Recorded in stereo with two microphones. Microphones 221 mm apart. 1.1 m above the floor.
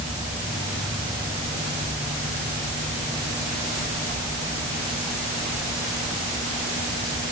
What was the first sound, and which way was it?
Only background noise.